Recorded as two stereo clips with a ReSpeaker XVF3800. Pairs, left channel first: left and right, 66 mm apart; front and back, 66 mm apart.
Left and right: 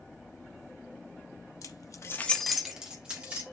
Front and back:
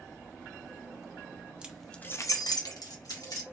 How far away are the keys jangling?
About 0.7 m.